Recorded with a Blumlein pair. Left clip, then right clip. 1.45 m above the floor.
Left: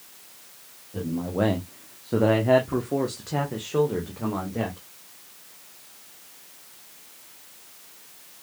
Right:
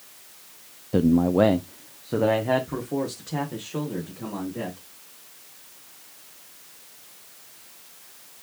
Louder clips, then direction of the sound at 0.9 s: Right 8 dB; 40° right.